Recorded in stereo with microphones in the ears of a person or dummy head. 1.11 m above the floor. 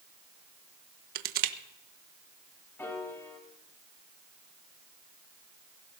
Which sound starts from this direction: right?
Crushing, at 1.1 s.